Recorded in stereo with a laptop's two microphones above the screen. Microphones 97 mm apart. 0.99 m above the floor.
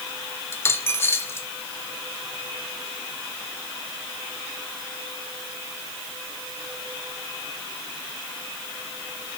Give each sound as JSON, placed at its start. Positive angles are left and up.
{"t": 0.5, "sound": "a dropped coin", "side_deg": 25, "distance_m": 1.1}